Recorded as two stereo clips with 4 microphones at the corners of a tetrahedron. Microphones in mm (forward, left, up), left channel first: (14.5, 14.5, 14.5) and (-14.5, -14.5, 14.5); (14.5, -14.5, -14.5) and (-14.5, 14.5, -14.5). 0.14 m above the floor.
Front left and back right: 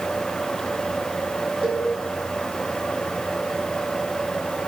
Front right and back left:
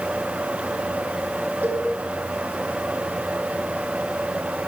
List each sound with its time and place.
1.6 s a cowbell: 145° left, 2.5 m